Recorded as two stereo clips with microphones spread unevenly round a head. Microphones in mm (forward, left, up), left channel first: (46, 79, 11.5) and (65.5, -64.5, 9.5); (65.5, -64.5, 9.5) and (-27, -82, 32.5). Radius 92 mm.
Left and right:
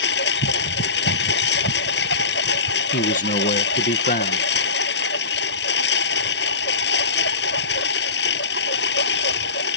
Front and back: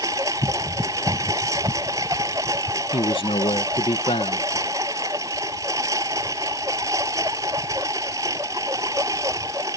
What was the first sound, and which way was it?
A lawn mower, 120° left.